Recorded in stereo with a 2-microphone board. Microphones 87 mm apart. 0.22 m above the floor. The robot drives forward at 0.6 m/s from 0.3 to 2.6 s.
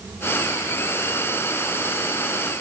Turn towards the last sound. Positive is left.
No sound to turn to.